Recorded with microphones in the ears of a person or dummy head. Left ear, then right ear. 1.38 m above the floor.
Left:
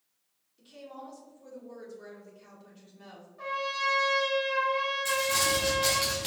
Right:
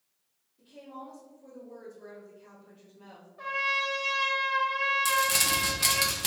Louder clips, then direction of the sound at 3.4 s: Right 2 dB; 10° right (ahead or behind).